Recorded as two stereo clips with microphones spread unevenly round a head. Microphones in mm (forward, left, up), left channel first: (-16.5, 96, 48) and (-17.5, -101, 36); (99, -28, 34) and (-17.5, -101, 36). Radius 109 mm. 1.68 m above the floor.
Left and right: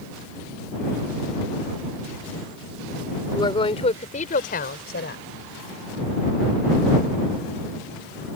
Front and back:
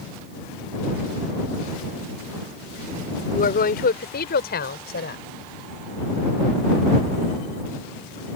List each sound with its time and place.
3.3 s a woman speaking: 20° left; by 5.2 s 45° left